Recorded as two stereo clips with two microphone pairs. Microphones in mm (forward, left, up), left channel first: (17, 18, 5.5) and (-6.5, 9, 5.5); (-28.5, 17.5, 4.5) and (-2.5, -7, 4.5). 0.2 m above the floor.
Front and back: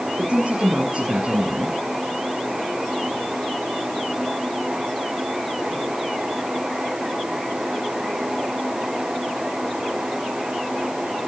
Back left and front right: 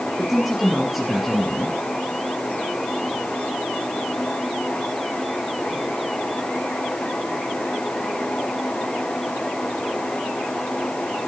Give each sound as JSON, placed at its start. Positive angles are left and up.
{"t": 0.2, "sound": "a man speaking", "azimuth_deg": -125, "distance_m": 2.5}